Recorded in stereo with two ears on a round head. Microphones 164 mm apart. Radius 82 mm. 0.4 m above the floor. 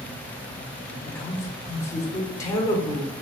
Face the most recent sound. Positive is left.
turn(degrees=15)  # may be behind; listen again after turning